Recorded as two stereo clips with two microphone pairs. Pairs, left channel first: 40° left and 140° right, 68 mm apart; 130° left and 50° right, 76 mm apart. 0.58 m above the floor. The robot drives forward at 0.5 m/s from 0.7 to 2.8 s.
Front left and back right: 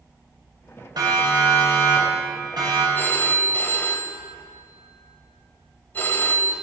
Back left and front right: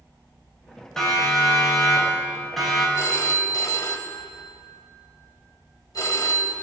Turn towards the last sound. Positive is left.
turn(degrees=95)